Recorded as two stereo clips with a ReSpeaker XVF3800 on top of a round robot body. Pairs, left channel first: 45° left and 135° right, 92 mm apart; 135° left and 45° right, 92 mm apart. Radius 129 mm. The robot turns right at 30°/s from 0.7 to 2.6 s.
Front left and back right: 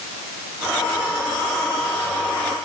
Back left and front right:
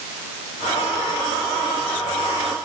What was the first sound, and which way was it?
Only background noise.